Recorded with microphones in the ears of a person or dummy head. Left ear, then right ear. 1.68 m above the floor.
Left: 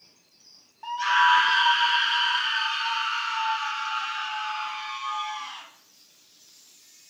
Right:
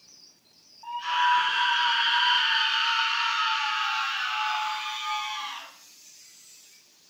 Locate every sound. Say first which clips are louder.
0.8 s a scream: left 4 dB; 75° left (ahead or behind), 0.6 m; by 5.7 s 35° right (ahead or behind), 2.5 m